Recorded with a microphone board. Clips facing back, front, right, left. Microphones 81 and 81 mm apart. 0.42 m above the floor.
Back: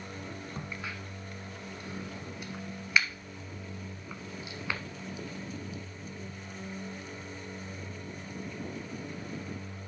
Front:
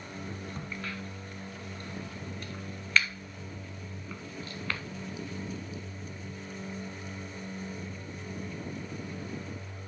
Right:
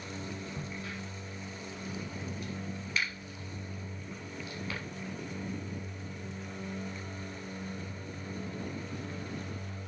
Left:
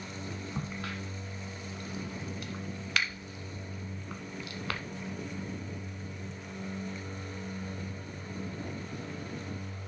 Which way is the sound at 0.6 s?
105° left.